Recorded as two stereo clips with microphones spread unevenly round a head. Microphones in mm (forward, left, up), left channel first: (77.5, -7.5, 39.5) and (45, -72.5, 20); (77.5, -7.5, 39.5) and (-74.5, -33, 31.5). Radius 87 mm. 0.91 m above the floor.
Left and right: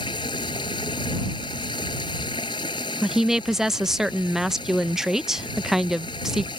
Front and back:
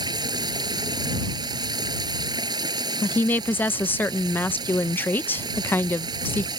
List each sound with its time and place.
0.0 s running water: 120° left
3.0 s a woman speaking: 65° right